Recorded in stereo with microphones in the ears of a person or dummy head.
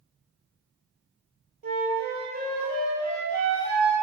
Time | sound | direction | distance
1.6 | a flute | 50° right (ahead or behind) | 1.8 m